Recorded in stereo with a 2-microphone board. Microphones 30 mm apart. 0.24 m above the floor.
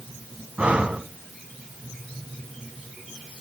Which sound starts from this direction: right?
Breathing, at 0.6 s.